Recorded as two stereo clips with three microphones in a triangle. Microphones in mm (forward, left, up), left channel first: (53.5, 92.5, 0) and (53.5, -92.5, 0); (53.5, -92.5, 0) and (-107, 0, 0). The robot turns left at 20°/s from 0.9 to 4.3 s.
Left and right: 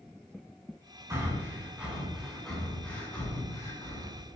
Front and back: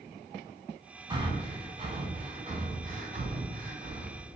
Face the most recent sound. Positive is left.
turn(degrees=140)